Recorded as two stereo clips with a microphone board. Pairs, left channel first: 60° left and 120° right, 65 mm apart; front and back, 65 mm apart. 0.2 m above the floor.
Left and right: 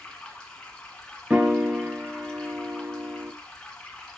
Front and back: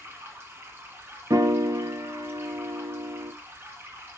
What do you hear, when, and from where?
0.0 s running water: 135° left, 2 m
1.3 s a piano: 175° left, 0.9 m